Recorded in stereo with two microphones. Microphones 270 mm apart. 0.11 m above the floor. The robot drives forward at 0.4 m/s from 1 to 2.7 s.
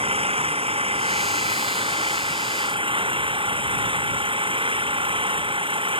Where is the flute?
No flute in this recording.